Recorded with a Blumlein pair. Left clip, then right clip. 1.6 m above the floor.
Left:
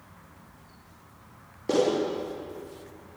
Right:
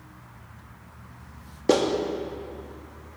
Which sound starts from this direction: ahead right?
A clap, at 1.7 s.